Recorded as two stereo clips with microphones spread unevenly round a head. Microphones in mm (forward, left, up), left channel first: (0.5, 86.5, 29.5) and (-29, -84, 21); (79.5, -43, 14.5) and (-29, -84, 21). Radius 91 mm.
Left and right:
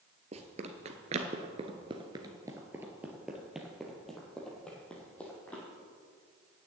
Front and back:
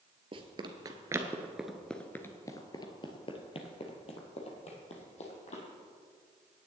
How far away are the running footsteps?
About 1.4 m.